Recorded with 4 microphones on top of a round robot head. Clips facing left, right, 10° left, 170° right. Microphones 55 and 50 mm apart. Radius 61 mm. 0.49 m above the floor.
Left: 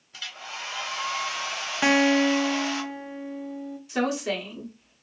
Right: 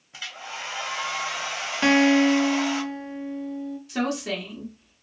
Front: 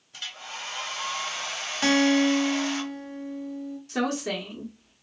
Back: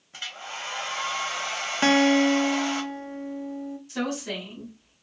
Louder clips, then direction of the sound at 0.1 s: Right 2 dB, back 2 dB; 140° right.